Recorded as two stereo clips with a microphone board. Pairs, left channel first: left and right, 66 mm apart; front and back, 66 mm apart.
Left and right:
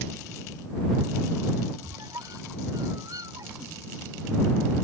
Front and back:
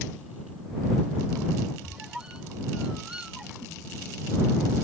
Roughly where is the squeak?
Right.